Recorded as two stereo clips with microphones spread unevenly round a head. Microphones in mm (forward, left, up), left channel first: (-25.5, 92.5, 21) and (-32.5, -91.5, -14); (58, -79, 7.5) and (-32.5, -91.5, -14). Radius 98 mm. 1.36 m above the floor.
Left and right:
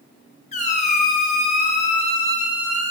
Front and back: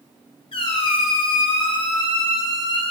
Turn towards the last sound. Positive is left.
turn(degrees=35)